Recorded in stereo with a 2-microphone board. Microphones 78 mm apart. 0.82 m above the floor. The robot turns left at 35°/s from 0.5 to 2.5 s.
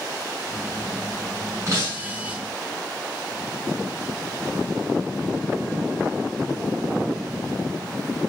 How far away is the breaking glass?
About 6.5 m.